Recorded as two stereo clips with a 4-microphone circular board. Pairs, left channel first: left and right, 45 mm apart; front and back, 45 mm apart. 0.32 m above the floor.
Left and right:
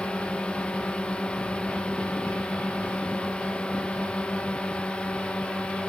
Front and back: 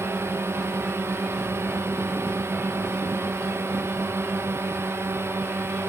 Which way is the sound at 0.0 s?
155° left.